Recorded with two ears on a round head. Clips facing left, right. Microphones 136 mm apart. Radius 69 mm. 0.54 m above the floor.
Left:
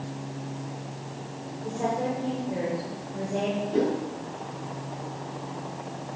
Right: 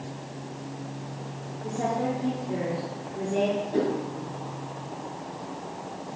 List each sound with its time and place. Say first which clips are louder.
1.6 s a woman speaking: even; 75° right (ahead or behind), 8 m
3.7 s a whoosh: left 4 dB; 15° right (ahead or behind), 8 m